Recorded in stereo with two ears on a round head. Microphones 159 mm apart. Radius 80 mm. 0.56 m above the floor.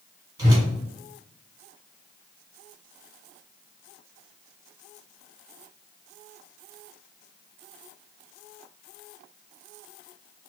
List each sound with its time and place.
0.4 s a whoosh: 20° right (ahead or behind), 1.5 m